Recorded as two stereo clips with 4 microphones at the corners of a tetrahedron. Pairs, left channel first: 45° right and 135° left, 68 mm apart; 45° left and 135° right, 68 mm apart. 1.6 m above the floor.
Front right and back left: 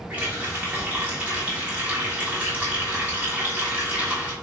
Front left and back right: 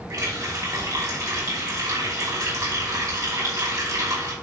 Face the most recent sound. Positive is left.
turn(degrees=-160)